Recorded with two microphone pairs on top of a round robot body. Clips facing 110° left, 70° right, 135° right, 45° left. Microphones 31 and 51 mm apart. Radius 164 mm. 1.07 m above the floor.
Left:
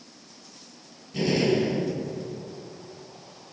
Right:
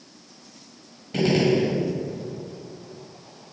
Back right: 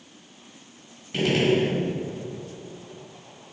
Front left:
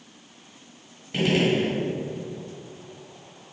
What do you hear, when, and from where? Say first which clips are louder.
1.1 s a gunshot: right 3 dB, back right 1 dB; 35° right, 1.5 m